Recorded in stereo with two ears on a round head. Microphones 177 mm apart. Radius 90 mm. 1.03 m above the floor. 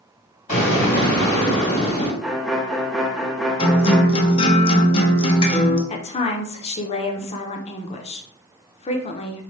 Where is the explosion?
35° left (ahead or behind), 2.5 m.